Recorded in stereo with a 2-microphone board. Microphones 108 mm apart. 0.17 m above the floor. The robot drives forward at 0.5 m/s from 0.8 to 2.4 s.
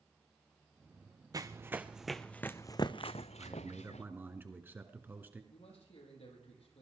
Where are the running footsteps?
35° right (ahead or behind), 0.8 m; by 4.0 s 85° left, 1.1 m.